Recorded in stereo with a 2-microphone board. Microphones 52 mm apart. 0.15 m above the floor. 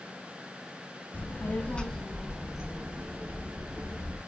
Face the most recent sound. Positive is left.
turn(degrees=-40)  # may be behind; listen again after turning